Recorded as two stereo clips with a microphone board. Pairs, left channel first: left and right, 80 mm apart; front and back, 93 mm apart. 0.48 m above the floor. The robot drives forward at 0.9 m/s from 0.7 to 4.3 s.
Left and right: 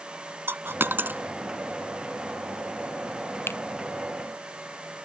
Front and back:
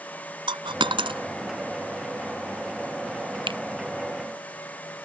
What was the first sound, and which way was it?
A dropped coin, 150° right.